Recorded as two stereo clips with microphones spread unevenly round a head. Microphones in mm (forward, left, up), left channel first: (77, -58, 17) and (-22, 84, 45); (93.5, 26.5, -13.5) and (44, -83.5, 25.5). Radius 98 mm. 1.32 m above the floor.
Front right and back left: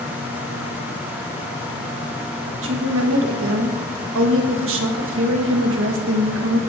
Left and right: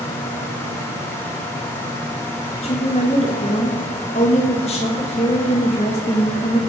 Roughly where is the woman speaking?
Behind left.